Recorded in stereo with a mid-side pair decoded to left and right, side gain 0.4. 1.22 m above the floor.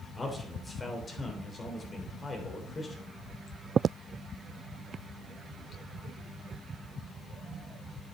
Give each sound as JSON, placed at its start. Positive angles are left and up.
{"t": 0.2, "sound": "a man speaking", "azimuth_deg": 30, "distance_m": 4.0}